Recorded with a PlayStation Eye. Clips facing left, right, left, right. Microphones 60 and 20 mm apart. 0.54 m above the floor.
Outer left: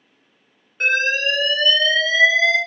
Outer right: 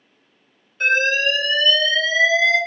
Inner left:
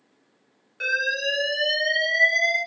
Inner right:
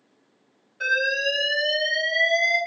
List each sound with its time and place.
0.8 s an alarm: 40° left (ahead or behind), 1.6 m